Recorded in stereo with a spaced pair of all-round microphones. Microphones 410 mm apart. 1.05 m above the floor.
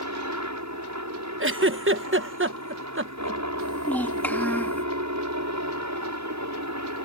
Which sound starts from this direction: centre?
A child speaking, at 3.6 s.